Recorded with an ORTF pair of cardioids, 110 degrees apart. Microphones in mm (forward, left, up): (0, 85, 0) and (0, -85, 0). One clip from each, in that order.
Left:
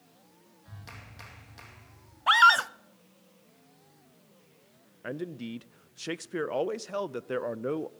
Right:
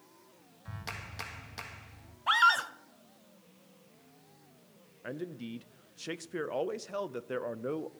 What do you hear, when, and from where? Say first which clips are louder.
0.7 s a clap: right 7 dB; 45° right, 2 m
2.3 s a scream: left 5 dB; 30° left, 0.9 m
5.0 s a man speaking: left 4 dB; 20° left, 0.6 m